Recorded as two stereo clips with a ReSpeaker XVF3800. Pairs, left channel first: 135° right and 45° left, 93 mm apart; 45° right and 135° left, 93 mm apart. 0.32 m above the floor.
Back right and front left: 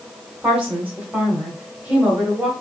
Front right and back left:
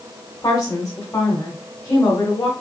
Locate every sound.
0.4 s a woman speaking: 25° right, 1.0 m